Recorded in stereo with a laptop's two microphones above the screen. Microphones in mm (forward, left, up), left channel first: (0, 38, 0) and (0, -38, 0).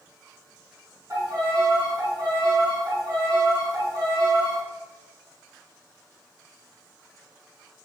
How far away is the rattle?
No rattle in this recording.